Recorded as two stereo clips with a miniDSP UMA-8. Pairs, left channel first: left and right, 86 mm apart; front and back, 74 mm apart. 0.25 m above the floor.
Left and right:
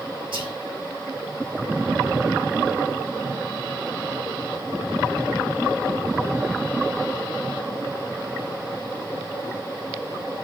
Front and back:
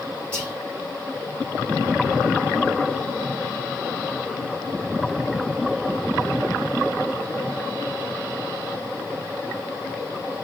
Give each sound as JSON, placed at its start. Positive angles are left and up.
{"t": 0.3, "sound": "whispering", "azimuth_deg": -70, "distance_m": 5.5}